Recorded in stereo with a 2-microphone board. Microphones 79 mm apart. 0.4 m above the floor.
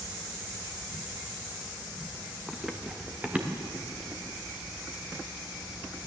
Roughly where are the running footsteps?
Centre.